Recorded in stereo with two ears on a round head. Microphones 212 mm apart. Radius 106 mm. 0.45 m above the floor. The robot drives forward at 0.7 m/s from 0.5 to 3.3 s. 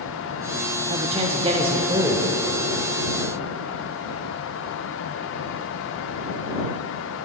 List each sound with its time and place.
0.9 s a man speaking: 25° right (ahead or behind), 0.8 m; by 2.3 s 15° right (ahead or behind), 1.3 m